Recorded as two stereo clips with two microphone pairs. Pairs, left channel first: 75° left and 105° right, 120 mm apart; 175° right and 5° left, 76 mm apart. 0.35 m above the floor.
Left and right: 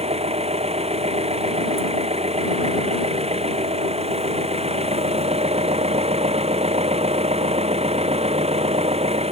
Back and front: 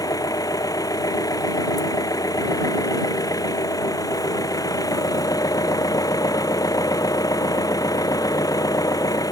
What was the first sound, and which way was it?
An engine running, 135° right.